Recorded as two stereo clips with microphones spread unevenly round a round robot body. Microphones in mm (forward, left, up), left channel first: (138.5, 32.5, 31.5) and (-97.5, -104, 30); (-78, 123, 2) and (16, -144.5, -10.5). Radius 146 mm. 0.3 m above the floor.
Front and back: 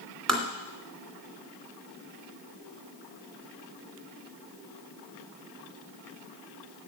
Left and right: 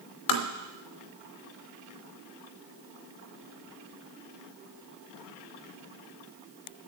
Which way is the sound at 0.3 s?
120° left.